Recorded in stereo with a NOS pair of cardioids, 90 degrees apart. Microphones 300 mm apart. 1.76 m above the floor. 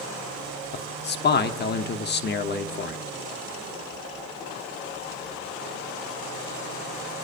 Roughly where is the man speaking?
Ahead left.